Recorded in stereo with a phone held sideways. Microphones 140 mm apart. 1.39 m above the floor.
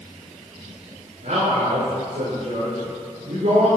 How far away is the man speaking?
About 5.5 m.